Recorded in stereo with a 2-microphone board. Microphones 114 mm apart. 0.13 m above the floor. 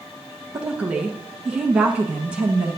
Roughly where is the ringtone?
I don't hear a ringtone.